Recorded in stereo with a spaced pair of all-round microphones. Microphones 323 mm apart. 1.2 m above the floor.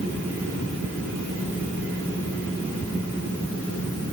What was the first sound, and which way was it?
Only background noise.